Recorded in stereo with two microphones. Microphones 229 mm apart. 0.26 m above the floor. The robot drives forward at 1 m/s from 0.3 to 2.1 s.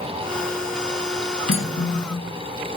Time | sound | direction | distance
1.5 | cutlery clinking | 65° left (ahead or behind) | 1.3 m